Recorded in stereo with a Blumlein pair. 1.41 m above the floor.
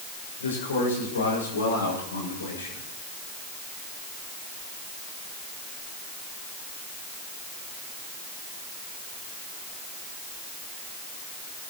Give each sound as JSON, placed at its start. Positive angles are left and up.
{"t": 0.4, "sound": "a man speaking", "azimuth_deg": 70, "distance_m": 6.5}